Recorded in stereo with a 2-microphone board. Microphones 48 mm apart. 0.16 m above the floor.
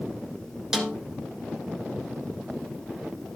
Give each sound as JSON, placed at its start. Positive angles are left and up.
{"t": 0.7, "sound": "a snare drum", "side_deg": -15, "distance_m": 1.6}